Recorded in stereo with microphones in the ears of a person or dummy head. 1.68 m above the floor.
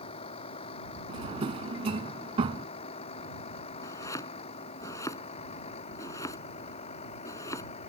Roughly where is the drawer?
Right.